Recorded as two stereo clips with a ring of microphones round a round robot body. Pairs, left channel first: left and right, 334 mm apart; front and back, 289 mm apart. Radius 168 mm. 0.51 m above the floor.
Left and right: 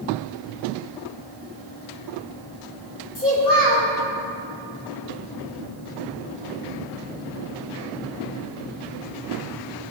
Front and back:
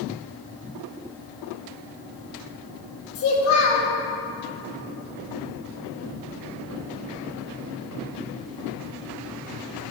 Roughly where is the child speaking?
Ahead left.